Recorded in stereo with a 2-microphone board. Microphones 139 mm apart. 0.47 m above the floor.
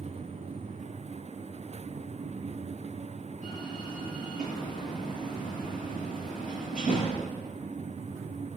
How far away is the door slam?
About 7.5 m.